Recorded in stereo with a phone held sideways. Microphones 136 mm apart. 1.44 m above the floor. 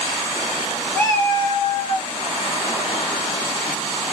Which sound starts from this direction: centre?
A cat meowing, at 0.9 s.